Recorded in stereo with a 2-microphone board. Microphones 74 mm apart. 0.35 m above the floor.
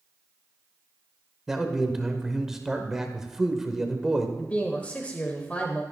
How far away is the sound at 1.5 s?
About 1.1 m.